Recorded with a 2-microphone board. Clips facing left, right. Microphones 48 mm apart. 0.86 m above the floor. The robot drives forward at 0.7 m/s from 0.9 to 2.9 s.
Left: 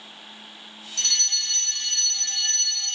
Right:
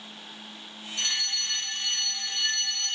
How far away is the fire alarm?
About 1.8 m.